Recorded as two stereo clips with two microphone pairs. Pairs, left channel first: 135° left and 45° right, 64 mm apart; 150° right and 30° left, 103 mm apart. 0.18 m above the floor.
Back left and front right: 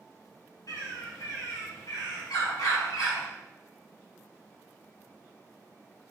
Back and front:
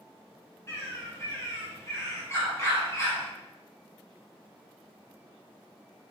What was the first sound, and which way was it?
A bird, 150° left.